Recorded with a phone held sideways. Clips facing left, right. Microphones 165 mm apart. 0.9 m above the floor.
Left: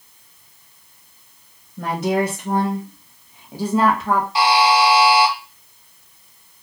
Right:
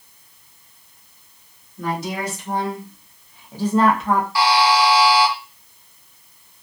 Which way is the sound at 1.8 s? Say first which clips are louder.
Left 6 dB; 65° left (ahead or behind).